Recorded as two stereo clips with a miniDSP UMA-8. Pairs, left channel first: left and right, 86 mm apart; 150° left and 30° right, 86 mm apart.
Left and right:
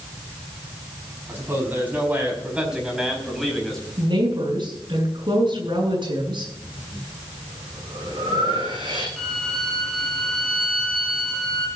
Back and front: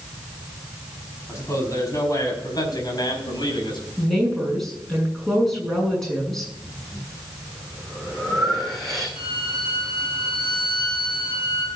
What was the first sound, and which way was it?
A man speaking, 155° right.